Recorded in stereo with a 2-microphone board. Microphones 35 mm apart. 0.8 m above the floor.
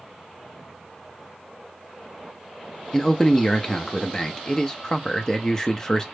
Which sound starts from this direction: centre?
A man speaking, at 2.9 s.